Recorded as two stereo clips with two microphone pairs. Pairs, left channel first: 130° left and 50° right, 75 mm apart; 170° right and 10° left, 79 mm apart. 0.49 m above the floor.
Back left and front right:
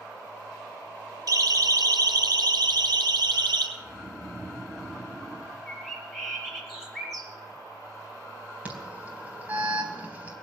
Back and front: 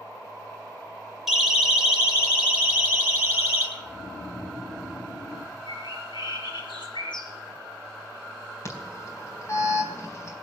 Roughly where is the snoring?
Behind right.